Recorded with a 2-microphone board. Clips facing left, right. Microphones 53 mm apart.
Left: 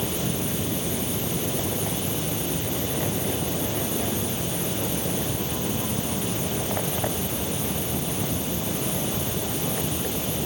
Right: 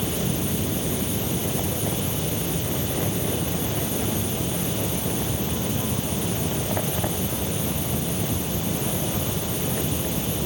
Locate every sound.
Only background noise.